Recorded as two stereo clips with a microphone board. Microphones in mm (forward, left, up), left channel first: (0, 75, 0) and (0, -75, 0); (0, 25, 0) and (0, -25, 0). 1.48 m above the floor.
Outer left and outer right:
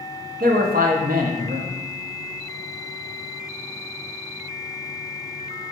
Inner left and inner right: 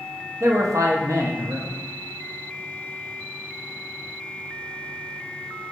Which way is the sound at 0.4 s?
80° right.